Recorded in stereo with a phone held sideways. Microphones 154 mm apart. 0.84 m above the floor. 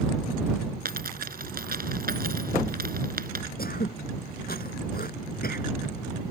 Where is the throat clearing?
65° left (ahead or behind).